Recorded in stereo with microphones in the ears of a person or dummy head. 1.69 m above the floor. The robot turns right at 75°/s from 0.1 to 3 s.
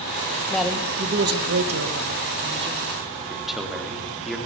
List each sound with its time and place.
0.5 s a man speaking: 170° left, 2 m; by 3.0 s 5° right, 2 m
3.3 s a man speaking: centre (ahead or behind), 4 m